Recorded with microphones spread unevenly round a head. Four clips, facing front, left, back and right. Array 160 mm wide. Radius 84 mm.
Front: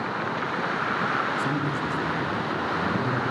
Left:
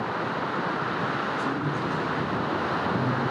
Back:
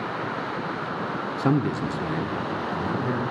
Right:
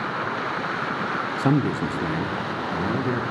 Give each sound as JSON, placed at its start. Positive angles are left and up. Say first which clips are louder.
{"t": 1.4, "sound": "a man speaking", "louder": "right 6 dB, back 3 dB", "azimuth_deg": -125, "distance_m": 0.5}